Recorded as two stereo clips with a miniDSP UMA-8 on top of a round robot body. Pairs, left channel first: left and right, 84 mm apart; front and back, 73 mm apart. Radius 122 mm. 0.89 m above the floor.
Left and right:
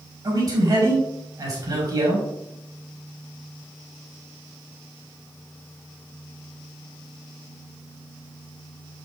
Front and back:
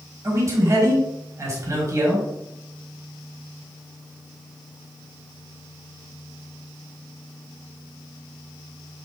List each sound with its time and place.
0.2 s a man speaking: 130° right, 4.5 m